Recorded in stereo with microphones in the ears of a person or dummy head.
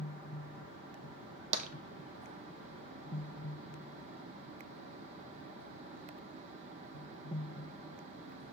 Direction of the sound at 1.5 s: 45° right (ahead or behind).